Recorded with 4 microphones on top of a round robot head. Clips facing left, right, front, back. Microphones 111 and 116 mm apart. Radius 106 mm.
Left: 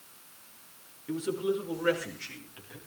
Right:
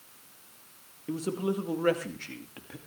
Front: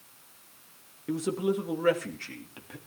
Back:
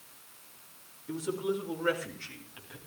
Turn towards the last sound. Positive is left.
turn(degrees=-50)